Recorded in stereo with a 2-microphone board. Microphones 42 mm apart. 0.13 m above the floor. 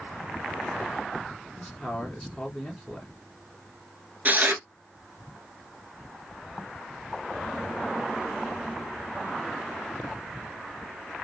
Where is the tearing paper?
40° right (ahead or behind), 0.9 m.